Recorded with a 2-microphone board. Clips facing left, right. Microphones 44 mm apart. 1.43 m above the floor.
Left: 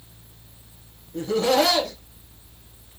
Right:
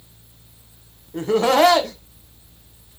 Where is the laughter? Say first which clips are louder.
Right 4 dB; 45° right (ahead or behind), 1.0 m.